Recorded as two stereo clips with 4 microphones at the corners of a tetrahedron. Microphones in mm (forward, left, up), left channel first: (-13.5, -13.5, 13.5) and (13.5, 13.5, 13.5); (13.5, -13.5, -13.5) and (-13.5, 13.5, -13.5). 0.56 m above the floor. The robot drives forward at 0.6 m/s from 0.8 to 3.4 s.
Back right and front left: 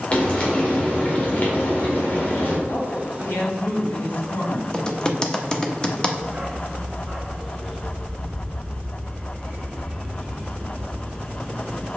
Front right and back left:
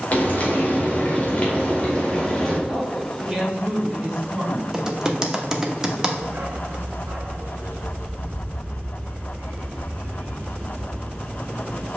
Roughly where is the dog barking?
Behind left.